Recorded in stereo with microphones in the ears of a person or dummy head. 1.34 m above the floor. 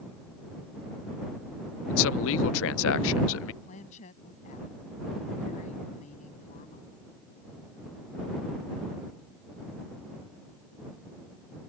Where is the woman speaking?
45° left (ahead or behind).